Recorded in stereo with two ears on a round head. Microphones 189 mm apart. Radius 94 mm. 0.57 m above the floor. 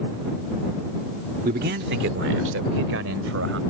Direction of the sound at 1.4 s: 45° right (ahead or behind).